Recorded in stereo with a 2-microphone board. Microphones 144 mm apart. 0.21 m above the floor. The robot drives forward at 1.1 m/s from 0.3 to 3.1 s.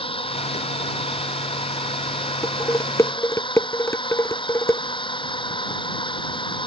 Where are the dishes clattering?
20° left (ahead or behind).